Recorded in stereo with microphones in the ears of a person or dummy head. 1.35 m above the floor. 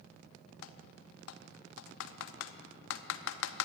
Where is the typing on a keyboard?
80° left, 0.7 m.